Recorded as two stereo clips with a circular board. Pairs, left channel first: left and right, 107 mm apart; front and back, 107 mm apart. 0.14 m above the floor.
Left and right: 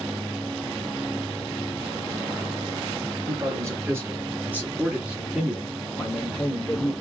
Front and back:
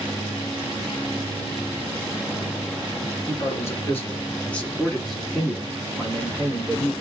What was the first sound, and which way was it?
A man speaking, 45° right.